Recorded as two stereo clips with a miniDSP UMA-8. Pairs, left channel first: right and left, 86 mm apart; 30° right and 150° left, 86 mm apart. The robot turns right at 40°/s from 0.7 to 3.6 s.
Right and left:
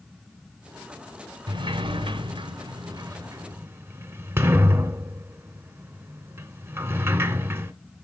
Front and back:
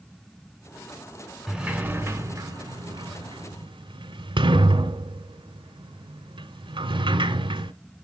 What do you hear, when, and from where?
1.5 s a sliding door: 65° left, 0.5 m; by 7.7 s 150° left, 0.5 m